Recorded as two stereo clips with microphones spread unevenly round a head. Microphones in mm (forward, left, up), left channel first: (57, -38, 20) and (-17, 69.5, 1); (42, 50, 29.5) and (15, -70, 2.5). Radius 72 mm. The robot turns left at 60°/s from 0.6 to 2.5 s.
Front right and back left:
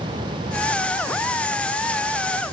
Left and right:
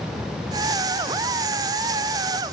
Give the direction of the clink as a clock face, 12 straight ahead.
No clink in this recording.